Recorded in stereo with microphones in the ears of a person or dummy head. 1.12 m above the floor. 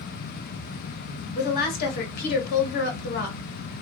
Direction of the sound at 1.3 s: 55° left (ahead or behind).